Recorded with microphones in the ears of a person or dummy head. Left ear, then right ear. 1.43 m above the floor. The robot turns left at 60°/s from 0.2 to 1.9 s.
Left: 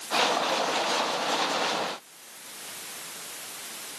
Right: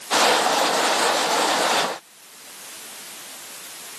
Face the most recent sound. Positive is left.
No sound to turn to.